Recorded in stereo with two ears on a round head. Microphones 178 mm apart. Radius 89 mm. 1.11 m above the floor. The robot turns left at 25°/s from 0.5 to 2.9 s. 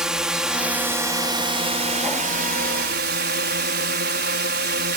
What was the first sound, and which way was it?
A drone, 5° right.